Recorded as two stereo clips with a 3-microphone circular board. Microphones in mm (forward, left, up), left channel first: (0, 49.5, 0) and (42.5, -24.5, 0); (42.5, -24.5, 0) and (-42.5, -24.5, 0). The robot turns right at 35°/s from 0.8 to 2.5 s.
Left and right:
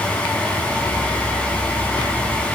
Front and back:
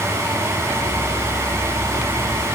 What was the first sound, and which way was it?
Only background noise.